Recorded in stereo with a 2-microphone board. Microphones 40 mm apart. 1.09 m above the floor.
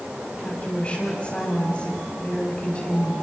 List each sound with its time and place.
0.4 s a woman speaking: 30° left (ahead or behind), 8.5 m